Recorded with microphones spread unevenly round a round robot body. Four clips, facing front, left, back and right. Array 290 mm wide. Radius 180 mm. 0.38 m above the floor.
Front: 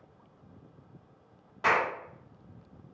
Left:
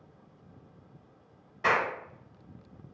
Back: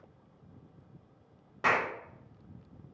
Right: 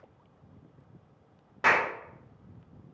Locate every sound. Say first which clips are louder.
1.6 s a clap: right 1 dB, front 2 dB; 135° right, 1.4 m